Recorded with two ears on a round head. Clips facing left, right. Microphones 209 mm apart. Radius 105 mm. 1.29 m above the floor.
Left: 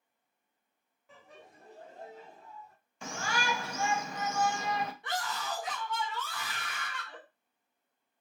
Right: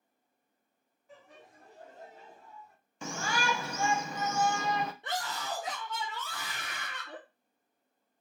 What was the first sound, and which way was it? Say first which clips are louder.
Laughter: even; 55° left (ahead or behind).